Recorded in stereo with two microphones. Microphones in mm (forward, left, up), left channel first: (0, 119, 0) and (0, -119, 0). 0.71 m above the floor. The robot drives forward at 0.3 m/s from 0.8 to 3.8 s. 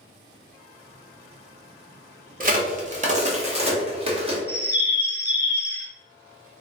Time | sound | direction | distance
2.4 | a crack | 35° right (ahead or behind) | 0.7 m
4.5 | a bird | 45° left (ahead or behind) | 0.6 m